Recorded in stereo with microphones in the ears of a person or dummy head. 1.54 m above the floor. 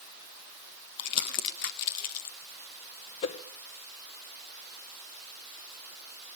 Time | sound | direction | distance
1.0 | crumpling | 55° left (ahead or behind) | 1.0 m
3.2 | a whoosh | 35° left (ahead or behind) | 0.7 m